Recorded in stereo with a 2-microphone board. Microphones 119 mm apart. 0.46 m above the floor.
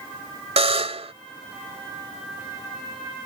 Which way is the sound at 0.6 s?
65° right (ahead or behind).